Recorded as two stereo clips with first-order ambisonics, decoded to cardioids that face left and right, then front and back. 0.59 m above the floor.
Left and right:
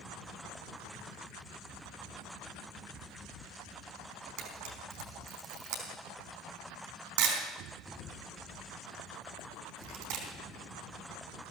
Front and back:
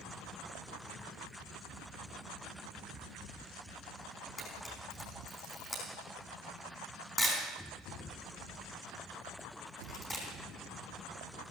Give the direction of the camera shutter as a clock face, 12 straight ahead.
3 o'clock.